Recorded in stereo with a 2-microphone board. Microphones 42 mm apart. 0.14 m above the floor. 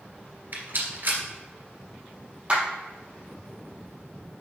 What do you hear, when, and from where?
0.5 s a rattle: 55° right (ahead or behind), 2 m
2.5 s a clap: 25° right (ahead or behind), 3 m